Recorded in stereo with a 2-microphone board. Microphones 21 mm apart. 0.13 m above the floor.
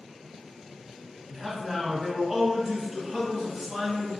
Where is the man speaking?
5° right (ahead or behind), 1.6 m.